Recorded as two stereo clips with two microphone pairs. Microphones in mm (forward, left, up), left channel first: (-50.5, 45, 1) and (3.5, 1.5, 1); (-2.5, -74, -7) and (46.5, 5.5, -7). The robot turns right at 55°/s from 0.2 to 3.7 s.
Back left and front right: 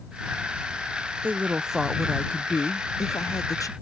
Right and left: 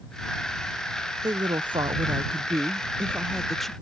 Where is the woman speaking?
20° left; by 3.7 s 160° left.